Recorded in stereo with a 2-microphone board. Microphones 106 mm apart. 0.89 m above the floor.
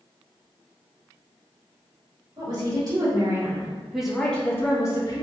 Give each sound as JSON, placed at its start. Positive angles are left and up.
{"t": 2.4, "sound": "a woman speaking", "side_deg": -45, "distance_m": 1.3}